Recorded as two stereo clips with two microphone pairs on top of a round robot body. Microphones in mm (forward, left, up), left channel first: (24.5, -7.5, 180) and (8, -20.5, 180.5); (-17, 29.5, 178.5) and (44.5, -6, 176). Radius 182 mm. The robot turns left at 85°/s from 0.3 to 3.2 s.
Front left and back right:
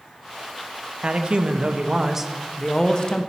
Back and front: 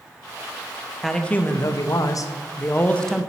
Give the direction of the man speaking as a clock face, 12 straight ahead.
4 o'clock.